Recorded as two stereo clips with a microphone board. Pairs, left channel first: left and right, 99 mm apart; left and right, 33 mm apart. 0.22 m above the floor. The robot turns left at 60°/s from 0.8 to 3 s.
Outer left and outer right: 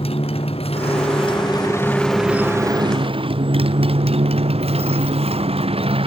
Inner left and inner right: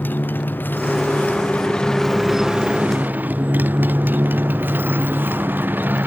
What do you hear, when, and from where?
0.0 s a motorcycle: 80° left; by 6.1 s 70° right (ahead or behind)